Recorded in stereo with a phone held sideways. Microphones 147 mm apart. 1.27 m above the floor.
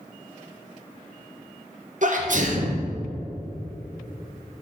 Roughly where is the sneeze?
Right.